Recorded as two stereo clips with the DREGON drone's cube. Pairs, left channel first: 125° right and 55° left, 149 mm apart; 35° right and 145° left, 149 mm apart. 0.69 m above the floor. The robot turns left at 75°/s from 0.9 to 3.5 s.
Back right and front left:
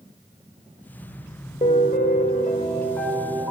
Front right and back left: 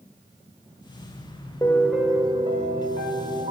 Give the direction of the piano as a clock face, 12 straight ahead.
3 o'clock.